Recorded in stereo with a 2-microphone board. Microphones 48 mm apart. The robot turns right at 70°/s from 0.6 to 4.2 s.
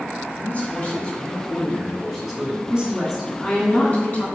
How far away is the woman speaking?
About 1.9 m.